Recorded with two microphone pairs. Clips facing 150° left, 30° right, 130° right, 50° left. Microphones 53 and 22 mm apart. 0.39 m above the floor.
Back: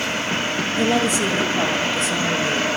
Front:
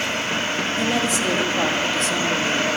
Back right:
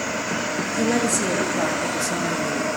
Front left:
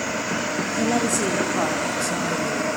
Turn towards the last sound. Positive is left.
turn(degrees=-120)